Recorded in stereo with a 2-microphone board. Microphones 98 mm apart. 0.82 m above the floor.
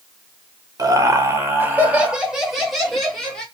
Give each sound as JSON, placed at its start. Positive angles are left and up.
{"t": 0.8, "sound": "laughter", "side_deg": -35, "distance_m": 0.8}